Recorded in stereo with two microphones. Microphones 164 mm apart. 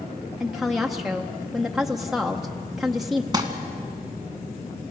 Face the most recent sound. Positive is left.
turn(degrees=-25)  # may be behind; listen again after turning